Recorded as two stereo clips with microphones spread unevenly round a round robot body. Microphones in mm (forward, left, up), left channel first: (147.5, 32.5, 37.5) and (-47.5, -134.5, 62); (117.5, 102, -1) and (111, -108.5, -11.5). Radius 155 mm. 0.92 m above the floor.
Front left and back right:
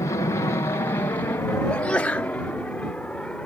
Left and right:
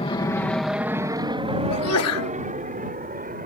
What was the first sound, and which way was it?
An aircraft, 85° left.